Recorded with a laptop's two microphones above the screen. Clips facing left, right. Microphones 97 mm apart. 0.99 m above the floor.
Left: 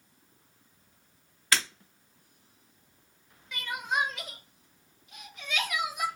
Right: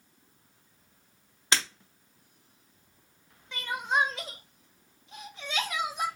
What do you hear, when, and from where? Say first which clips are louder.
1.5 s breaking glass: even; 25° right (ahead or behind), 1.4 m
3.5 s crying: right 3 dB; 30° right (ahead or behind), 0.7 m